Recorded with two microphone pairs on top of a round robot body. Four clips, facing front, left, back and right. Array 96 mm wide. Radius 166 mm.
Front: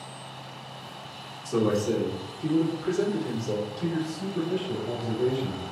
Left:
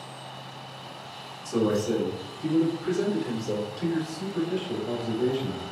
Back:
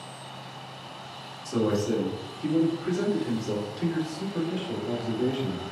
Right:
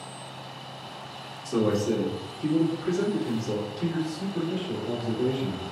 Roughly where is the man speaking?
Right.